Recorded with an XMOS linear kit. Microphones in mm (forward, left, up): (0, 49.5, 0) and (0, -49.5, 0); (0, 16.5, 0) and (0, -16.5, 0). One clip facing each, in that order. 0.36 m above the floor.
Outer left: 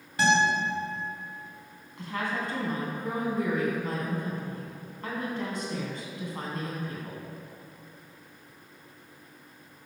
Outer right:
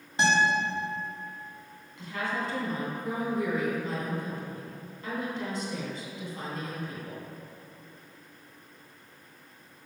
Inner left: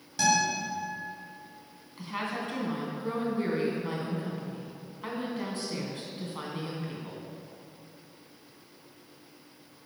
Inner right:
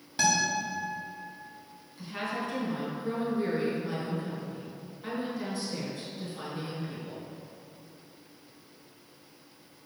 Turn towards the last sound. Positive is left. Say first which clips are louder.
# outer left 1 dB, even
turn(degrees=55)  # may be behind; listen again after turning